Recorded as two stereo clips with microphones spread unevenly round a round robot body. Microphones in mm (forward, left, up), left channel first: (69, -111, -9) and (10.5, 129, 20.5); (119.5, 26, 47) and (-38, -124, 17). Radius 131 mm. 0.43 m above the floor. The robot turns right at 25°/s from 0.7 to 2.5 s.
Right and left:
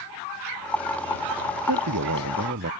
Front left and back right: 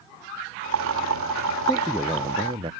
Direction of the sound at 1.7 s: 130° left.